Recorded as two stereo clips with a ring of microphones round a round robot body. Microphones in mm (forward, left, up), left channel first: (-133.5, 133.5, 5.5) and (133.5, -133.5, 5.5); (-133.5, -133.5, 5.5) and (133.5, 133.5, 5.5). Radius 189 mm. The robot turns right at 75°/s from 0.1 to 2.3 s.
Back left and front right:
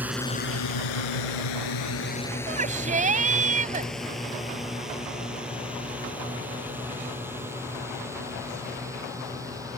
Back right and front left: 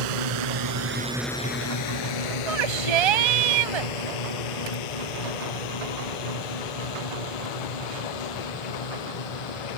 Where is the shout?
25° left.